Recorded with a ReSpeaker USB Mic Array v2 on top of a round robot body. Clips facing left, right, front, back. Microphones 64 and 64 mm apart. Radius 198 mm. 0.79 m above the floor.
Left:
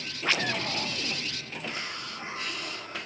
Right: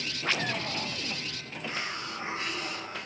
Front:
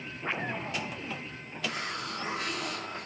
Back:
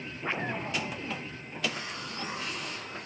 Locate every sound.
1.6 s a hiss: 25° right, 1.3 m